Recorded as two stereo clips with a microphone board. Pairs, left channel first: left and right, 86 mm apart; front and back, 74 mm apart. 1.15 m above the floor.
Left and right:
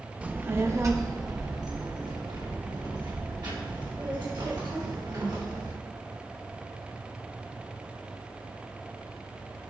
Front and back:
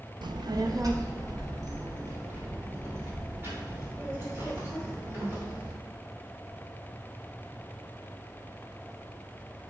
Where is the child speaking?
165° right, 0.7 m; by 5.7 s 120° right, 4.5 m.